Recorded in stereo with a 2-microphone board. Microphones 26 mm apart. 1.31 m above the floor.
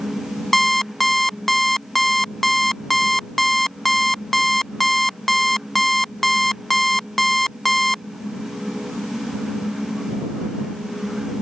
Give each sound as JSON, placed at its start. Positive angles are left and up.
{"t": 0.5, "sound": "an alarm clock", "side_deg": 10}